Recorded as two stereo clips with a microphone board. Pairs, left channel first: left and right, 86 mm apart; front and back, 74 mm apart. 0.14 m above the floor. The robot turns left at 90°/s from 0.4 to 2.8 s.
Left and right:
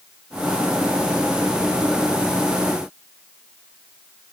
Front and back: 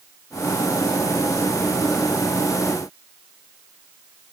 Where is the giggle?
I don't hear a giggle.